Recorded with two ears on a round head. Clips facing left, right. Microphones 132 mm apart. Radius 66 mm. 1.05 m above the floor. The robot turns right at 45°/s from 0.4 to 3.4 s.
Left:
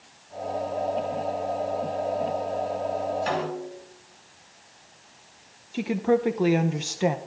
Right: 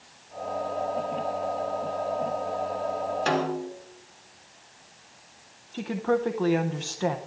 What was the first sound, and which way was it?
A snare drum, 65° right (ahead or behind).